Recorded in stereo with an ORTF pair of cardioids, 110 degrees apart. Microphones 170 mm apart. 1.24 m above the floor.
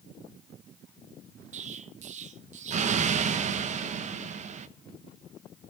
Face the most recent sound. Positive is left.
turn(degrees=-40)